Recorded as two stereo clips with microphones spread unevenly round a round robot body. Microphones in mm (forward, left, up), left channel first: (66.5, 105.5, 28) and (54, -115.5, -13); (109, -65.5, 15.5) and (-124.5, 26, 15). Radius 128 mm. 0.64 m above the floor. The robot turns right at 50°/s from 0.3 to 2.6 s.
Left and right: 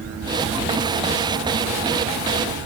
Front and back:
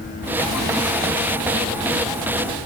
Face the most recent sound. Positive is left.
No sound to turn to.